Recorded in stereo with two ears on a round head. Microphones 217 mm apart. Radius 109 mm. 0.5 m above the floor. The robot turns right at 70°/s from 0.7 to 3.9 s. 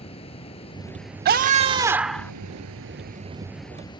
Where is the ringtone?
I don't hear a ringtone.